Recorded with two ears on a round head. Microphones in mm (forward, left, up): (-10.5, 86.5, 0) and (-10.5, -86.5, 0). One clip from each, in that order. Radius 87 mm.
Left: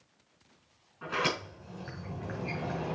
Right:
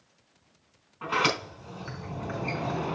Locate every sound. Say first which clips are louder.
1.0 s a sliding door: right 5 dB; 35° right (ahead or behind), 4 m